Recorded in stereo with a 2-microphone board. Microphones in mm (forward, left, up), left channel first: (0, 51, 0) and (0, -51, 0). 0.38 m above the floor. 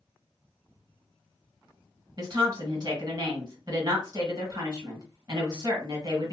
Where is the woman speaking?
40° right (ahead or behind), 1.7 m.